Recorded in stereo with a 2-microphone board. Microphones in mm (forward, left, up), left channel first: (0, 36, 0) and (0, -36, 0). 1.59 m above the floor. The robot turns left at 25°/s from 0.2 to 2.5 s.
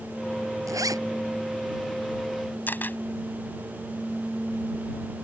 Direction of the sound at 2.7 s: 25° left (ahead or behind).